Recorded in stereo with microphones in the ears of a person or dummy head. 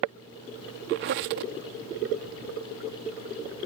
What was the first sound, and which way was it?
A squeak, 55° right (ahead or behind).